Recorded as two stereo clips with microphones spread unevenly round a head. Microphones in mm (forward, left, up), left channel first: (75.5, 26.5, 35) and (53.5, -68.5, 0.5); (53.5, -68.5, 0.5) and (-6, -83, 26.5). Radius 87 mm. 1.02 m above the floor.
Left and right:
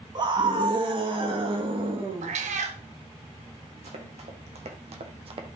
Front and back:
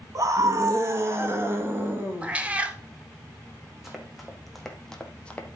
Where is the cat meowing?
110° right, 1.3 m.